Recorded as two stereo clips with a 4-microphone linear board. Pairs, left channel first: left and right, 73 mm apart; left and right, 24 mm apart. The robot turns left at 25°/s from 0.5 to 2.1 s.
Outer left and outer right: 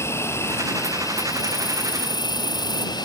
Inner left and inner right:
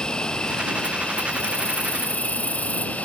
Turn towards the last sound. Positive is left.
turn(degrees=100)